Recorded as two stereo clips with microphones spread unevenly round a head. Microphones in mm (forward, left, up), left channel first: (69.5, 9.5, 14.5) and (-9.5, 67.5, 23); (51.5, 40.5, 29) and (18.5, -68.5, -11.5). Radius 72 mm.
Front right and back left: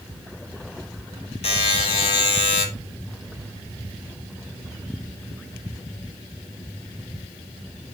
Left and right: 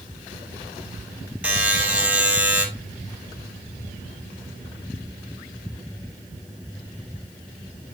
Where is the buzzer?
20° right, 3 m.